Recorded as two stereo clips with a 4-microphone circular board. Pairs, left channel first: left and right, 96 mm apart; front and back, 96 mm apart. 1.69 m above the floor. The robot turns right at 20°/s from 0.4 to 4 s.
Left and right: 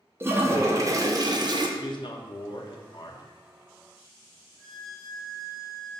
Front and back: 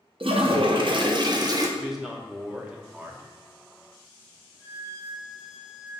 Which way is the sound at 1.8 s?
90° left.